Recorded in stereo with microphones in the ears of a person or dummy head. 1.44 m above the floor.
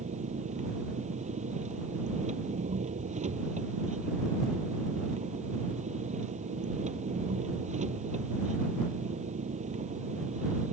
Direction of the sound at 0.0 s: 40° right (ahead or behind).